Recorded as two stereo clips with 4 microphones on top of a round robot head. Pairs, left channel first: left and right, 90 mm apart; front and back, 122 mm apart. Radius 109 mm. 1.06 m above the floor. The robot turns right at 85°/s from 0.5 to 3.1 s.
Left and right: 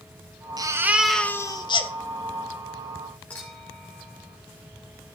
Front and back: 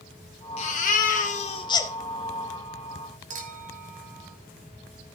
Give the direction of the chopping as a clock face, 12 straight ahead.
I don't hear chopping.